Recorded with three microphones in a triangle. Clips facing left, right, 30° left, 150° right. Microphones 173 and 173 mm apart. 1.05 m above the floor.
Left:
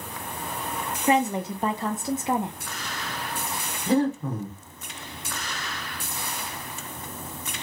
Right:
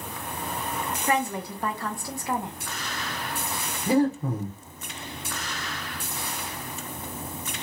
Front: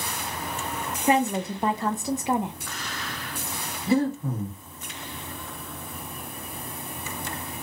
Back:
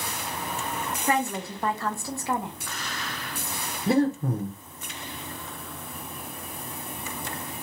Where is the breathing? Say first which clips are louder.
Right 1 dB, back 1 dB; 170° right, 1.3 m.